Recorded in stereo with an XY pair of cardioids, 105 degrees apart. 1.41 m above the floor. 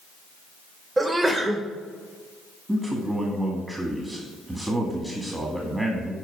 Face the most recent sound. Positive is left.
turn(degrees=-15)